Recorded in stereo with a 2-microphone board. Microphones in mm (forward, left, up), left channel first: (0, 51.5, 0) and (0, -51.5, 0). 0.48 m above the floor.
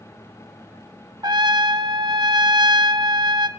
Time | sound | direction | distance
1.2 | a trumpet | 45° right (ahead or behind) | 0.5 m